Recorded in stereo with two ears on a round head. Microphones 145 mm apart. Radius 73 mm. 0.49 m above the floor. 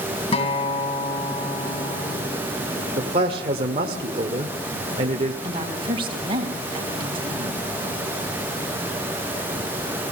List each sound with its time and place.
0.3 s a guitar: 35° left (ahead or behind), 2.5 m
3.0 s a man speaking: 40° right (ahead or behind), 1.6 m
5.4 s a woman speaking: 35° right (ahead or behind), 4 m